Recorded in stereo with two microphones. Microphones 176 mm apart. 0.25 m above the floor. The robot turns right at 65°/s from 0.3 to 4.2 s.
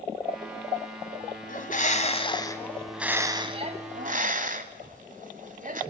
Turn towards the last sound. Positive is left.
turn(degrees=-95)